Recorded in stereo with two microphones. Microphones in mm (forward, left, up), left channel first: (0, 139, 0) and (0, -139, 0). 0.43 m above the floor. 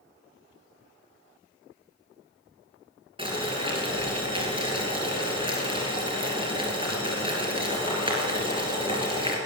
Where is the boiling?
20° right (ahead or behind), 3 m.